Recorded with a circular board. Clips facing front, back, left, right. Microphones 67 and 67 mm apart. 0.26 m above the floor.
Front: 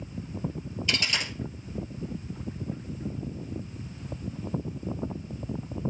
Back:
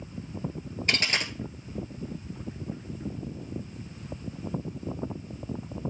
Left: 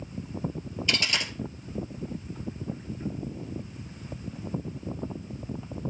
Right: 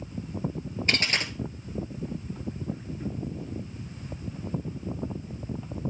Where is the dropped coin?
140° right, 1.4 m.